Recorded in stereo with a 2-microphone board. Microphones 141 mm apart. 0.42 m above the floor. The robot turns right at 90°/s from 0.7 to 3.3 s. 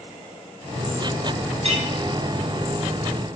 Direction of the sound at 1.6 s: 45° right (ahead or behind).